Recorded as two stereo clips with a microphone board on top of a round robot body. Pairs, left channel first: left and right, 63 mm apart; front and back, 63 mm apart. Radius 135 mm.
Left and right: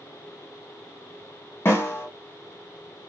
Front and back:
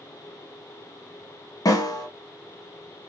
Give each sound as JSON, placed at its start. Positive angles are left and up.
{"t": 1.6, "sound": "a snare drum", "azimuth_deg": 35, "distance_m": 1.0}